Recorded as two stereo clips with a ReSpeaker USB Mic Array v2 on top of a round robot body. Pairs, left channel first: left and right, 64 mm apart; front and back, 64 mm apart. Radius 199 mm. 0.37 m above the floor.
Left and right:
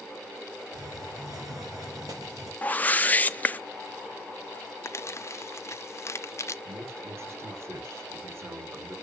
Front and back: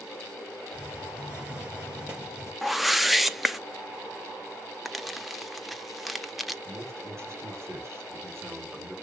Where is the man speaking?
135° right, 3 m.